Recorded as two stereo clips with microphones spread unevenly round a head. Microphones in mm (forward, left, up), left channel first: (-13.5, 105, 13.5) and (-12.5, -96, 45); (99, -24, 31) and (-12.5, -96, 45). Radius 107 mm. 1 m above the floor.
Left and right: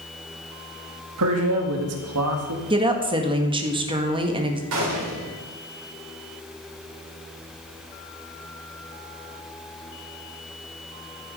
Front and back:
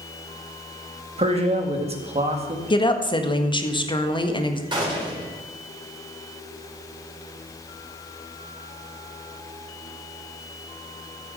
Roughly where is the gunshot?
Right.